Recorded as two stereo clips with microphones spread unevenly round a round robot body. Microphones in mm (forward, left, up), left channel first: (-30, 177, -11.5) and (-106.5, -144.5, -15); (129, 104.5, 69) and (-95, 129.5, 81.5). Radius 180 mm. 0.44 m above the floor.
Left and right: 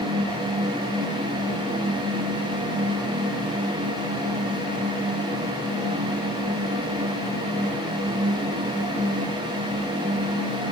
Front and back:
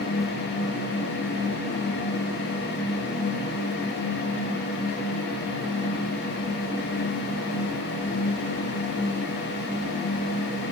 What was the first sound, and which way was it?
Only background noise.